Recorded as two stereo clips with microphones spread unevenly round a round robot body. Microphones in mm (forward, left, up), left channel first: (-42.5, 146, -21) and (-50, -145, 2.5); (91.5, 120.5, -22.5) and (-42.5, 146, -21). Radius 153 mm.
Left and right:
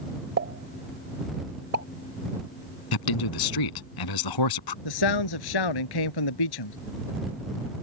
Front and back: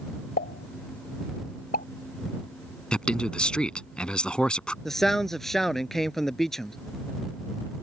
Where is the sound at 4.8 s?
75° left.